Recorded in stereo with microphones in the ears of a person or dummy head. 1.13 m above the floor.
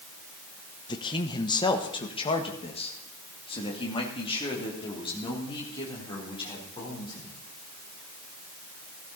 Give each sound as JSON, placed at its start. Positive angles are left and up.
{"t": 0.9, "sound": "a man speaking", "side_deg": 20, "distance_m": 0.9}